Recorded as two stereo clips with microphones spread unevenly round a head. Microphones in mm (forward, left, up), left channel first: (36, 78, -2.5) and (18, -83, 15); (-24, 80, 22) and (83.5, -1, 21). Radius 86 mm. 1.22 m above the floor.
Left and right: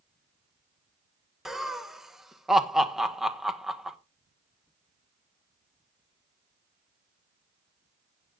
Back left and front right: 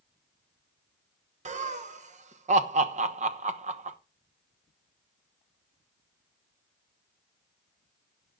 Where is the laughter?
5° right, 1.2 m.